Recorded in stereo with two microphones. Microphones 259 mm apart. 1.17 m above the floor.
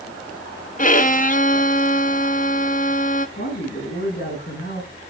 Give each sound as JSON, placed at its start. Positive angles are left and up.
{"t": 0.8, "sound": "a violin", "side_deg": 30, "distance_m": 0.8}
{"t": 3.4, "sound": "a man speaking", "side_deg": 40, "distance_m": 10.0}